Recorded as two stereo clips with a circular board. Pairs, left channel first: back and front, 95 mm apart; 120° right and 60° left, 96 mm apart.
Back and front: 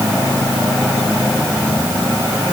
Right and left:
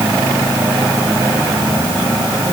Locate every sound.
Only background noise.